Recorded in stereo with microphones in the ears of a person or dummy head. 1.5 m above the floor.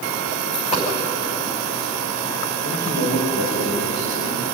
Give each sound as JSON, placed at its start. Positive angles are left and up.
{"t": 0.4, "sound": "a dropped coin", "side_deg": 30, "distance_m": 5.5}
{"t": 2.6, "sound": "a man speaking", "side_deg": 60, "distance_m": 6.0}